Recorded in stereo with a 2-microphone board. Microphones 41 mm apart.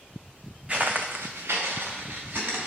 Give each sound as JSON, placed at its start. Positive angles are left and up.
{"t": 0.7, "sound": "footsteps", "side_deg": -25, "distance_m": 0.7}